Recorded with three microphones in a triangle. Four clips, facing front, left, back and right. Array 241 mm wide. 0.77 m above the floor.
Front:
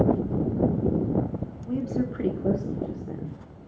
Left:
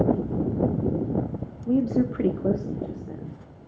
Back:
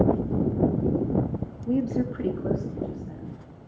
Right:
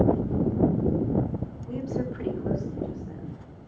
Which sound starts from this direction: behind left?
A woman speaking, at 1.7 s.